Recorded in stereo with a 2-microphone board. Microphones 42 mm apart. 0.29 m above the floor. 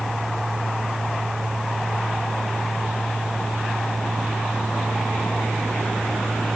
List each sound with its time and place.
Only background noise.